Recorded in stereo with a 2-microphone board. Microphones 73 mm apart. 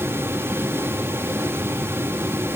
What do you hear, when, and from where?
Only background noise.